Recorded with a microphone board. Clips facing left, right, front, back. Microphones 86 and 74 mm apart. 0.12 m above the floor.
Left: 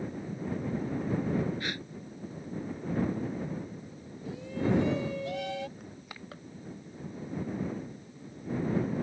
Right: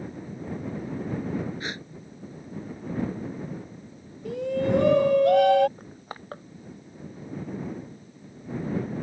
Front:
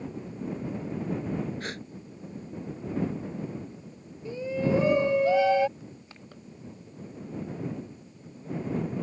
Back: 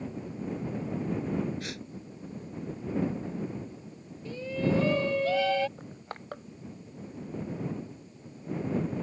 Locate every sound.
1.6 s a gasp: 30° right
4.2 s a shout: 70° right
5.8 s crushing: 140° right